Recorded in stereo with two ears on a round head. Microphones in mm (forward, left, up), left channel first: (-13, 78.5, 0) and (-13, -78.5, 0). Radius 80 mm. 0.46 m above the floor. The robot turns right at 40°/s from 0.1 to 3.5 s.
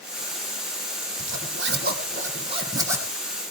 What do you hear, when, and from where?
1.2 s a zipper: 85° right, 2.5 m; by 3.1 s 10° right (ahead or behind), 2.5 m